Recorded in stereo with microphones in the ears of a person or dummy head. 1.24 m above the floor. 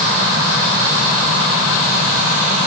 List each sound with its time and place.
Only background noise.